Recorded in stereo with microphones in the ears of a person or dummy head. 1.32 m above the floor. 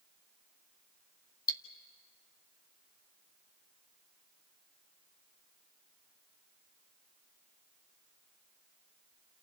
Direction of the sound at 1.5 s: 15° left (ahead or behind).